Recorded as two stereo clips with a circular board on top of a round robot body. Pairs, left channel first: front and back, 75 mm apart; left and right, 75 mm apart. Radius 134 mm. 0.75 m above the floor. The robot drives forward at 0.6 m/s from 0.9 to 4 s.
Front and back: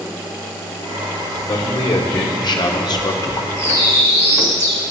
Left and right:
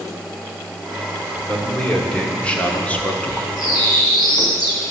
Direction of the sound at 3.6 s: 55° left.